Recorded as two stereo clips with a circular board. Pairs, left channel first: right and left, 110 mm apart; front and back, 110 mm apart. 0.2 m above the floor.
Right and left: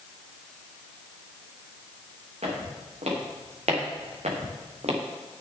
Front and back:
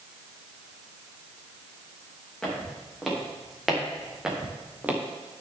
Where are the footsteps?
85° left, 5 m; by 5.0 s 105° left, 2.5 m.